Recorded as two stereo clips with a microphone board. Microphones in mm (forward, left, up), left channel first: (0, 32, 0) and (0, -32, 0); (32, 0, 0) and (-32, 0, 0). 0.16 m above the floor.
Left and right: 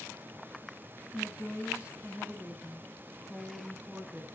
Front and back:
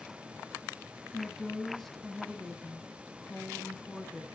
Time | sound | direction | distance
1.1 | a woman speaking | 75° right | 1.2 m